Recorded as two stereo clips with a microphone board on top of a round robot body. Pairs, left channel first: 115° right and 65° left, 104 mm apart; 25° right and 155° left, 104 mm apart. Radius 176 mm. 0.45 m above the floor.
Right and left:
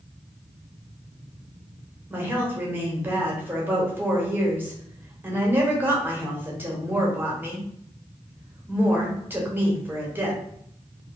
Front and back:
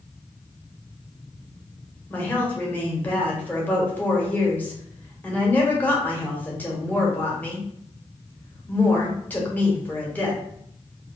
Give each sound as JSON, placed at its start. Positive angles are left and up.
{"t": 2.1, "sound": "a woman speaking", "azimuth_deg": 25, "distance_m": 1.1}